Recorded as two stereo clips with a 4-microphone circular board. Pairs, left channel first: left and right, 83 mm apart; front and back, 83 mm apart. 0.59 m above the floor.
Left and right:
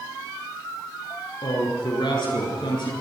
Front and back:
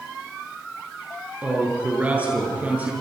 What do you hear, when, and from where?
1.4 s a man speaking: 110° left, 8 m